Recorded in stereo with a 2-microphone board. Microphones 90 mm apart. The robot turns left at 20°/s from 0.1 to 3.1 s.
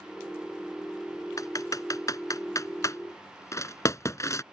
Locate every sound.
1.4 s typing on a keyboard: 40° left (ahead or behind); by 4.4 s 35° left (ahead or behind)